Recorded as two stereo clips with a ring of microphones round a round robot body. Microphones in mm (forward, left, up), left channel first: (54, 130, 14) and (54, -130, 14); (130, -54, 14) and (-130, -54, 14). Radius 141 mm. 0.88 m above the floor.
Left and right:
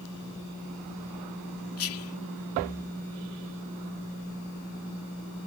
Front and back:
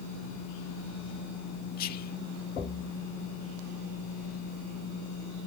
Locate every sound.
1.8 s whispering: 60° left